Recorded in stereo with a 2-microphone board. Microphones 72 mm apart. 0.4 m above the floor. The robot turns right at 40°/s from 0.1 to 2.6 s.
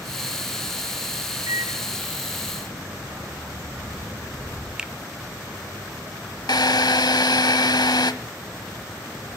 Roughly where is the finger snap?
Centre.